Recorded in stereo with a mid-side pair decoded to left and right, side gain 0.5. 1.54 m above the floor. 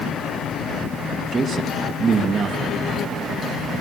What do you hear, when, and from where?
1.3 s a man speaking: 45° right, 2.5 m